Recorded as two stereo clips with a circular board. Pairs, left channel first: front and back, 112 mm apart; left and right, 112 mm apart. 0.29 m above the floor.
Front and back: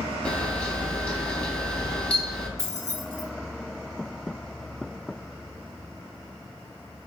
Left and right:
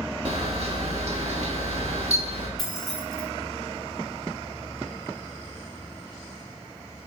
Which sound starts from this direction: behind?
Keys jangling, at 2.6 s.